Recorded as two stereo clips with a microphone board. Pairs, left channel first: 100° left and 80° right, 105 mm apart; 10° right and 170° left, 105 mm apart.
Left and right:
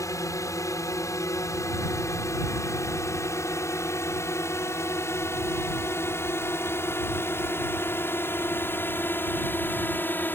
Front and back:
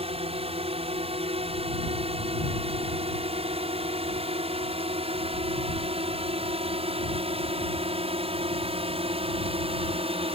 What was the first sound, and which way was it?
A drone, 155° left.